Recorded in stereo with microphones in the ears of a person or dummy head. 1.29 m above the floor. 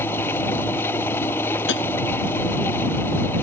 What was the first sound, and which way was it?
An engine running, 15° left (ahead or behind).